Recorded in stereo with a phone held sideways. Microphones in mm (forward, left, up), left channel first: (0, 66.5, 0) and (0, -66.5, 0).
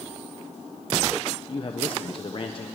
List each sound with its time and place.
1.5 s a man speaking: 45° left (ahead or behind), 1.2 m